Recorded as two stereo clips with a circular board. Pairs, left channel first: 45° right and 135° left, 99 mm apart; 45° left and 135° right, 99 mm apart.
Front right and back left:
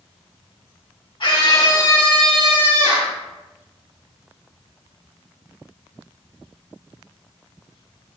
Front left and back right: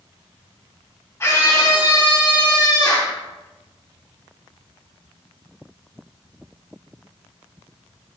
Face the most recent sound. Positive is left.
turn(degrees=105)